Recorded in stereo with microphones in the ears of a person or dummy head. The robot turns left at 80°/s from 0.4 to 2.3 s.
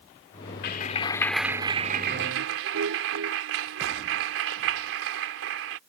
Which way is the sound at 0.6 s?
60° left.